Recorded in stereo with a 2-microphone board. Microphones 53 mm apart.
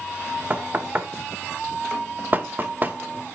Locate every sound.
0.5 s knocking: 35° right (ahead or behind), 0.9 m